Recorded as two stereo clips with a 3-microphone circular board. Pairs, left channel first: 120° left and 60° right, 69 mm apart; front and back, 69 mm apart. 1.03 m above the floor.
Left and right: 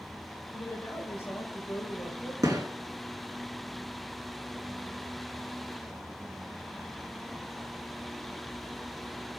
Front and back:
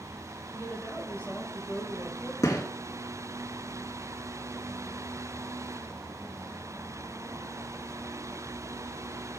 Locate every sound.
0.5 s a woman speaking: 70° left, 4.5 m
2.4 s a gunshot: 25° right, 3.5 m